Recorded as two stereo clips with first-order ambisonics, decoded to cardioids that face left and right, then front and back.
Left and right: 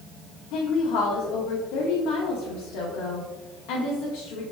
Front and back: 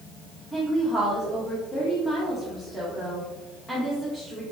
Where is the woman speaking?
85° left, 1.0 m.